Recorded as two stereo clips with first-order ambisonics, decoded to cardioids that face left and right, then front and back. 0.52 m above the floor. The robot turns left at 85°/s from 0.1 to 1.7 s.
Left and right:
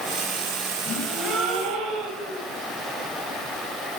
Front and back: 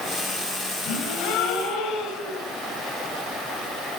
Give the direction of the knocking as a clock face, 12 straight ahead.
No knocking in this recording.